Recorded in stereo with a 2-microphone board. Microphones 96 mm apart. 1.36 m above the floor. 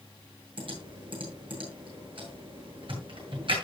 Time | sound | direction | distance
0.6 | typing on a keyboard | 65° right (ahead or behind) | 8.5 m